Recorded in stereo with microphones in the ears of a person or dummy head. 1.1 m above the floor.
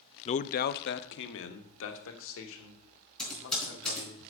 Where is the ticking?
No ticking in this recording.